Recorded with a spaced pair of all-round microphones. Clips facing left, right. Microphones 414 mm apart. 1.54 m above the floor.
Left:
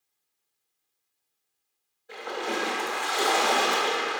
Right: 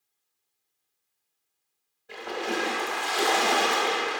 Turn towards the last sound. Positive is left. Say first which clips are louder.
# right 1 dB
turn(degrees=-45)  # may be behind; listen again after turning